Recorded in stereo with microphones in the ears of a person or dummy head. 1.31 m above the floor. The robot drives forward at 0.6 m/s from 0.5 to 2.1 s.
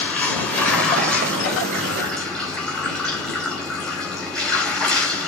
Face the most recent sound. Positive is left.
turn(degrees=5)  # may be behind; listen again after turning